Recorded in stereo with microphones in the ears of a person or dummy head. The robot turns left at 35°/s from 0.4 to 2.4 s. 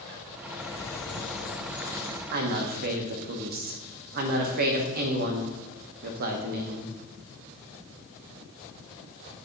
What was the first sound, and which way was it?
A bird, 30° left.